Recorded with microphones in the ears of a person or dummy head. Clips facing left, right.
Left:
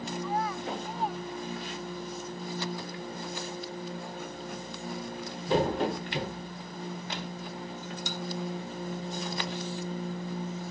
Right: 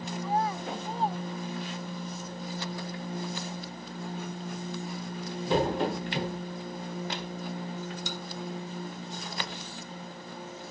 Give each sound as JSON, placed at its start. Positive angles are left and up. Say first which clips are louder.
{"t": 0.2, "sound": "a child speaking", "louder": "right 3 dB", "side_deg": -35}